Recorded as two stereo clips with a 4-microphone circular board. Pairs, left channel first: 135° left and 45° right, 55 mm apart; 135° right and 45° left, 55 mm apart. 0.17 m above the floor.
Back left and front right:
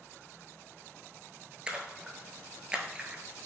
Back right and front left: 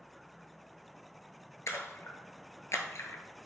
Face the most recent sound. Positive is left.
turn(degrees=-115)